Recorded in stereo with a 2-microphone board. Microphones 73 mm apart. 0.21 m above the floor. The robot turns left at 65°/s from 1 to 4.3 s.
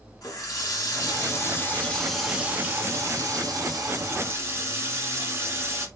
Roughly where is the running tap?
Left.